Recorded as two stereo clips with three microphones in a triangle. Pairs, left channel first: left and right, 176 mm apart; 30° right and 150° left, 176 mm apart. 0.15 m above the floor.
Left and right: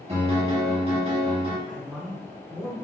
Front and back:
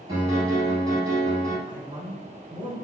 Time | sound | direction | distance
0.1 | a piano | 140° right | 1.6 m
1.7 | a man speaking | 170° right | 1.2 m